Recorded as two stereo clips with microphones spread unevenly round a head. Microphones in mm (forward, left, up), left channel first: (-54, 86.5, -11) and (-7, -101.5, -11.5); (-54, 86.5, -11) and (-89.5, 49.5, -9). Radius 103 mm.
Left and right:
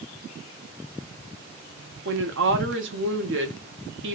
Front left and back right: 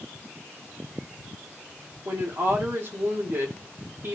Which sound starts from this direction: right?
A woman speaking, at 2.0 s.